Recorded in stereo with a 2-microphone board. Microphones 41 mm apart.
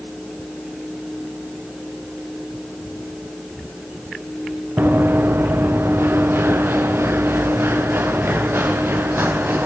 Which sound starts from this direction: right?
Running footsteps, at 4.8 s.